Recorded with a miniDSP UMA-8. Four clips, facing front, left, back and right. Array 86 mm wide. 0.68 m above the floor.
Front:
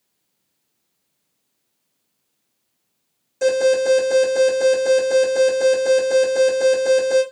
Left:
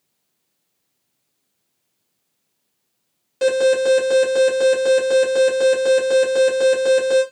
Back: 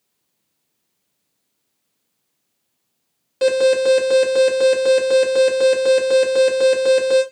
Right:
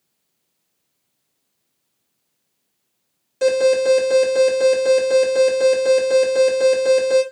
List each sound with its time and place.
3.4 s an alarm: 160° left, 1.1 m